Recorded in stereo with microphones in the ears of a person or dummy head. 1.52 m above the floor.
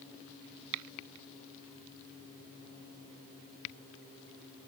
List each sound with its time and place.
Only background noise.